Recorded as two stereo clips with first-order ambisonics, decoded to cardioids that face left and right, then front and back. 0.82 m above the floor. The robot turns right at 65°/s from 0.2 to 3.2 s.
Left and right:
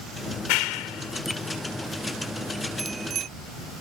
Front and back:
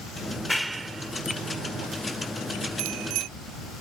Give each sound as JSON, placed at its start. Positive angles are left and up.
{"t": 0.3, "sound": "a clap", "azimuth_deg": 70}
{"t": 2.8, "sound": "a bicycle bell", "azimuth_deg": -175}